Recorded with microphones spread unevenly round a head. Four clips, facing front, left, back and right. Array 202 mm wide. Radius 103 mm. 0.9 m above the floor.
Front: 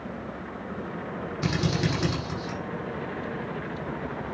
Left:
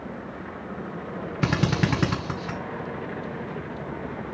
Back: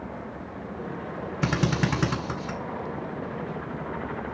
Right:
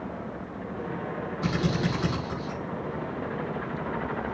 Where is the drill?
105° left, 2.5 m.